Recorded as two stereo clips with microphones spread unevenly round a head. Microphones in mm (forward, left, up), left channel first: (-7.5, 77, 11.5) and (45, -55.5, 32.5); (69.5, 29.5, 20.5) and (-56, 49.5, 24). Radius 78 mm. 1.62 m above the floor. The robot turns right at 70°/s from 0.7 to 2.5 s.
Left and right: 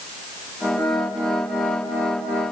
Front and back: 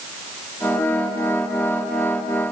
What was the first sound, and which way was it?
Only background noise.